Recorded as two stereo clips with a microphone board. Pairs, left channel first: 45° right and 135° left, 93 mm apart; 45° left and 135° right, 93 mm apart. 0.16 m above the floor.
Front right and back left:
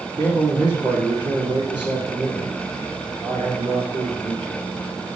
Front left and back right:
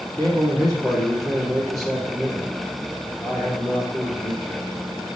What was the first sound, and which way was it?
A man speaking, 95° left.